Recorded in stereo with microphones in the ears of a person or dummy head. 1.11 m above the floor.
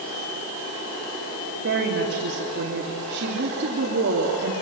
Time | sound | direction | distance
1.6 | a woman speaking | 65° right (ahead or behind) | 2.5 m